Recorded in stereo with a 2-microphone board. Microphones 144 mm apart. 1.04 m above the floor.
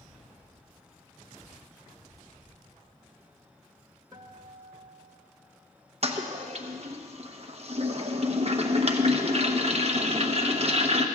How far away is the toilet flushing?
About 0.9 m.